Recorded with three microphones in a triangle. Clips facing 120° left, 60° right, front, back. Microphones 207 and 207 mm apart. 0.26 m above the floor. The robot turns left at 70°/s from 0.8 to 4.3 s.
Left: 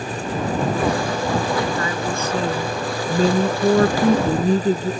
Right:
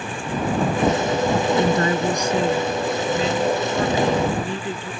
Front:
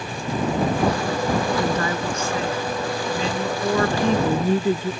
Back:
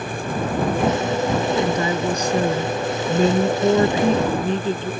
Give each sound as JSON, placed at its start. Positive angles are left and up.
{"t": 1.6, "sound": "a woman speaking", "azimuth_deg": -90}